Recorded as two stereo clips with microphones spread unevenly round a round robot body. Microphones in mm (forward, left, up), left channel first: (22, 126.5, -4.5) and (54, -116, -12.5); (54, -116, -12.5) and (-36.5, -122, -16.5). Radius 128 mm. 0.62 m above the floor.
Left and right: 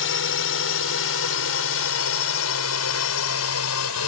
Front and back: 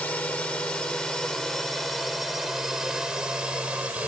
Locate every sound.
0.0 s a drone: 85° left; by 4.1 s 105° left